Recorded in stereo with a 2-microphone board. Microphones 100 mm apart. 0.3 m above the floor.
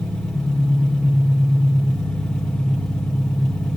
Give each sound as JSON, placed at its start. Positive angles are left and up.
{"t": 0.0, "sound": "an engine running", "side_deg": 5, "distance_m": 4.5}